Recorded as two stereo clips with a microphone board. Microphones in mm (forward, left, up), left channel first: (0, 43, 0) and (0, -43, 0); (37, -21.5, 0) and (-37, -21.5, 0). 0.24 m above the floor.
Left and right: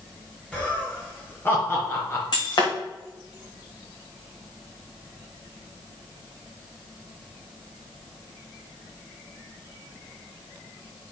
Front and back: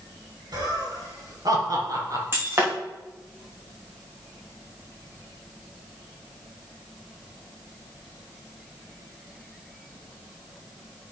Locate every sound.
0.5 s laughter: 165° left, 4 m; by 2.2 s 140° left, 3 m
2.3 s breaking glass: 125° left, 4.5 m